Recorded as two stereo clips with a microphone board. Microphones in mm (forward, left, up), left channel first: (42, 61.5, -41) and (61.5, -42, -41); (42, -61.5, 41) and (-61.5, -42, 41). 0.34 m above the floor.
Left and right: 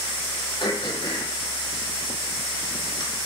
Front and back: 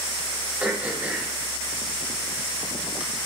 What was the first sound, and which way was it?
Throat clearing, 100° left.